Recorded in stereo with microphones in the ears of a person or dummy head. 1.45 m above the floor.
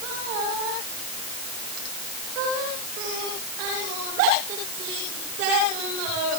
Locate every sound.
Only background noise.